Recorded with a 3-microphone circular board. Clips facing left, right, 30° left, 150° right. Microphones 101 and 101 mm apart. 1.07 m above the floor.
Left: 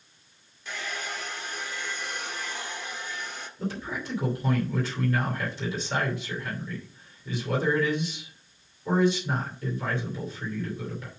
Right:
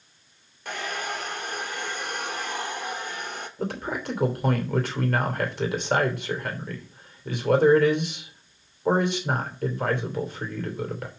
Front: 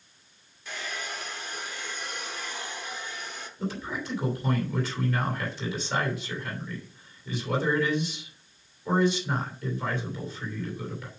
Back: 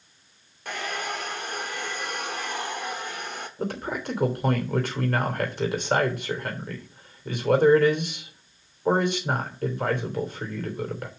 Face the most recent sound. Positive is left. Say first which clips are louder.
# right 3 dB, back 3 dB
turn(degrees=-120)